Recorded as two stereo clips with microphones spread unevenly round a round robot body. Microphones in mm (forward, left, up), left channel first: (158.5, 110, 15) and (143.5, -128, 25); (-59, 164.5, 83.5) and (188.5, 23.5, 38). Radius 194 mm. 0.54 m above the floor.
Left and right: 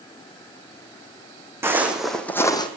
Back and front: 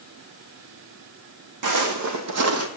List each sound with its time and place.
1.6 s footsteps: 15° right, 1.6 m; by 2.7 s 15° left, 1.2 m